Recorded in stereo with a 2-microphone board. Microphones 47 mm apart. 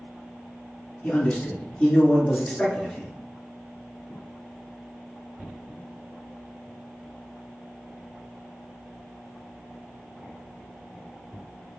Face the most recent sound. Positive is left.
turn(degrees=10)  # may be behind; listen again after turning